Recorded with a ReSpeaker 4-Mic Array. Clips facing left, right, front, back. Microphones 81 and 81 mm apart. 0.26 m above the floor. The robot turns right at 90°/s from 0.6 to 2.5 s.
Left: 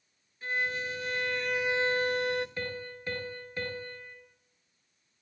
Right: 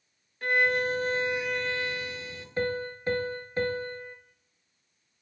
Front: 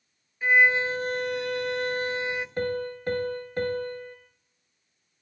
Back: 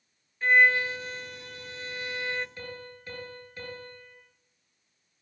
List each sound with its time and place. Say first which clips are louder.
0.4 s a violin: right 8 dB, front 1 dB; 80° right, 0.6 m; by 2.5 s 85° left, 0.6 m
2.6 s a piano: right 8 dB, front 13 dB; 35° right, 3 m